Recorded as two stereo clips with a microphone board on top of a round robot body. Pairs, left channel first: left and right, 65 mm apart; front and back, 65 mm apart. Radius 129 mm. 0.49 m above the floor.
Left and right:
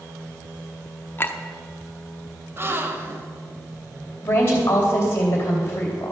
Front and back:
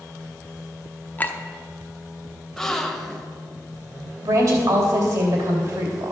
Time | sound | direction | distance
1.2 | a clink | 50° left | 0.9 m
2.6 | a gasp | 80° right | 1.1 m
4.2 | a woman speaking | 150° left | 2.5 m